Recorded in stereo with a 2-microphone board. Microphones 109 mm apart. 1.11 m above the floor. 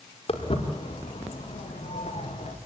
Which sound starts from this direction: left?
Footsteps, at 0.3 s.